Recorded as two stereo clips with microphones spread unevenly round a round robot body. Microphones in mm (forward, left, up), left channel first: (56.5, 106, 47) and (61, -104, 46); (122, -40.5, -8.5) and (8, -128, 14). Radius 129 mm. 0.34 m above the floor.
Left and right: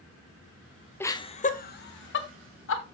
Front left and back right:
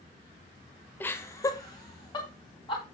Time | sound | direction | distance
1.0 | laughter | 25° left | 1.0 m